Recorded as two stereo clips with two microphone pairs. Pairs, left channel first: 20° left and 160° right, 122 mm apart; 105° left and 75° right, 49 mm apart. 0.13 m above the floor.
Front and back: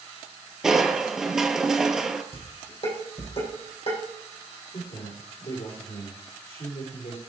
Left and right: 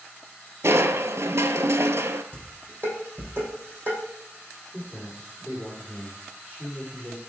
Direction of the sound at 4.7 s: 15° left.